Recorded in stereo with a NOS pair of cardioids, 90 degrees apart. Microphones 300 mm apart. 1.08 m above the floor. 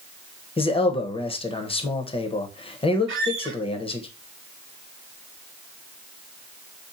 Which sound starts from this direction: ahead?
A man speaking, at 0.6 s.